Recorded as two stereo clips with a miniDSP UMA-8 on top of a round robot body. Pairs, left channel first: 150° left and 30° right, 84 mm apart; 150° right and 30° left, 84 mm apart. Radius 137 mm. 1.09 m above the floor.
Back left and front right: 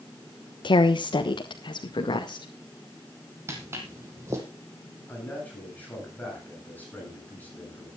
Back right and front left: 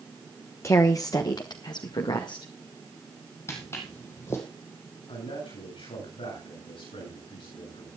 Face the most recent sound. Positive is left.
turn(degrees=-140)